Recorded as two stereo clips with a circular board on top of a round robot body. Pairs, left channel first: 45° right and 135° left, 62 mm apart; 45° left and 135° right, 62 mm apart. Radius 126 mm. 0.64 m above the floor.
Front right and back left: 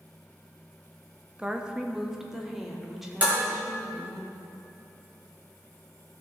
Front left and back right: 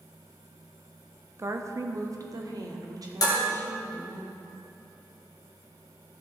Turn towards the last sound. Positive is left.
turn(degrees=70)